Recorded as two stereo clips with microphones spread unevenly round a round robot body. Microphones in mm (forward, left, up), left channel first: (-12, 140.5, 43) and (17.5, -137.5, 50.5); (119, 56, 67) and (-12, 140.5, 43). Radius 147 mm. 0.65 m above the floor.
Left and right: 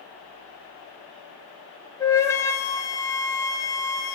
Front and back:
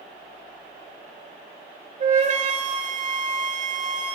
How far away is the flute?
About 1.0 m.